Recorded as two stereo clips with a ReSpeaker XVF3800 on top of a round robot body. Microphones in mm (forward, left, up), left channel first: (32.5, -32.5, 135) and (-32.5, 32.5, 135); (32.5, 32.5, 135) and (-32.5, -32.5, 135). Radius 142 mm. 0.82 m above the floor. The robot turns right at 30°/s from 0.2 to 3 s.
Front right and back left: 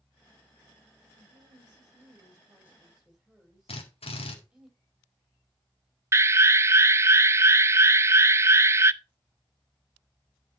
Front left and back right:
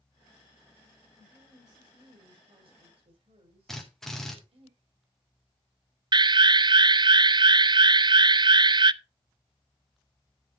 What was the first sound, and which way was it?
A woman speaking, 165° left.